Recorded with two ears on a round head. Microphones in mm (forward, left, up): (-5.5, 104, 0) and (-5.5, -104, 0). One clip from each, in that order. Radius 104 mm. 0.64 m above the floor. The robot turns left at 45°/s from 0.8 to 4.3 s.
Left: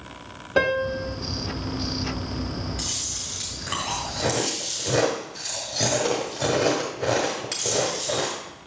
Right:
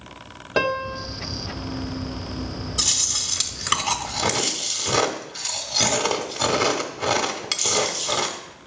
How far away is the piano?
About 0.8 m.